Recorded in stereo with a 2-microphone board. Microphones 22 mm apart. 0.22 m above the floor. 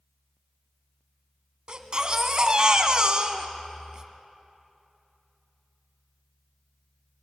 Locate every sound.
1.7 s a baby crying: 40° right (ahead or behind), 1.5 m